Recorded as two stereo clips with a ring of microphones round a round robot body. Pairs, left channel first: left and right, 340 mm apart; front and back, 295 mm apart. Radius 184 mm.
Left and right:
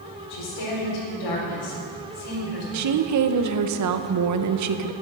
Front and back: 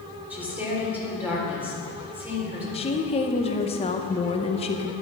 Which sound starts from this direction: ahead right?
A woman speaking, at 2.7 s.